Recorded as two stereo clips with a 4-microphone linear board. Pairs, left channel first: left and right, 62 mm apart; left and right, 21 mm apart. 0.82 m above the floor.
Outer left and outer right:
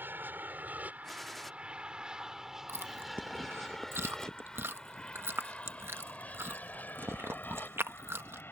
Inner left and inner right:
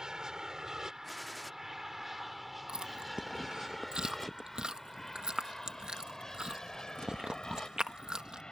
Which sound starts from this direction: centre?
A gunshot, at 1.0 s.